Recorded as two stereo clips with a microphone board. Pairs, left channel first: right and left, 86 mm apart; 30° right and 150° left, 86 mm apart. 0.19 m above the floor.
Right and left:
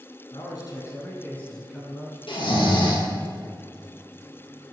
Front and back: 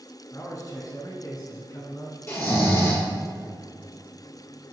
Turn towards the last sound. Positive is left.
turn(degrees=-90)